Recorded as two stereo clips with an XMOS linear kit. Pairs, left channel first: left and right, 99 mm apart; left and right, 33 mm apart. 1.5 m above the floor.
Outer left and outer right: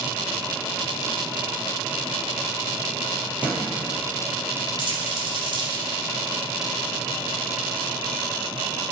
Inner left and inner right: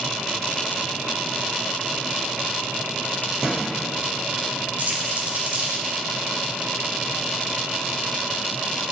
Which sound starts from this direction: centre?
A thud, at 3.4 s.